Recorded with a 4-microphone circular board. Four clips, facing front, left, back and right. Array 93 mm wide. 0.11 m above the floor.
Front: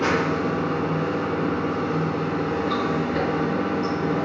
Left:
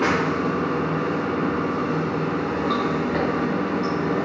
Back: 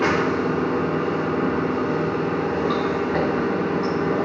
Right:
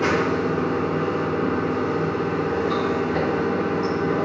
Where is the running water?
135° left, 3.5 m.